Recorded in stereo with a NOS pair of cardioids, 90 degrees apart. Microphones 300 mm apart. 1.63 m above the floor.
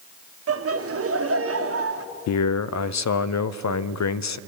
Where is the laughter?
50° right, 1.6 m.